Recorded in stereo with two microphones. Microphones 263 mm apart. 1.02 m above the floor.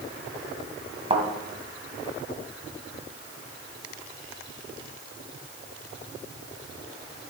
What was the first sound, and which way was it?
A thud, 25° right (ahead or behind).